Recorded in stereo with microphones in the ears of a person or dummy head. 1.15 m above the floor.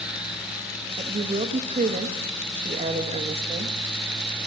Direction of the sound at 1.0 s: 30° right (ahead or behind).